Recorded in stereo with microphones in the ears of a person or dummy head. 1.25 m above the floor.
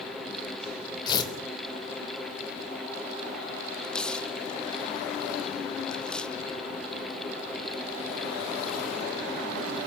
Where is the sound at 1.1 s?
30° left (ahead or behind), 3 m.